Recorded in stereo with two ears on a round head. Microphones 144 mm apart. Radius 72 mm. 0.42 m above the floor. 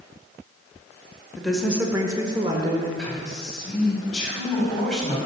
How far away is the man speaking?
About 2.5 m.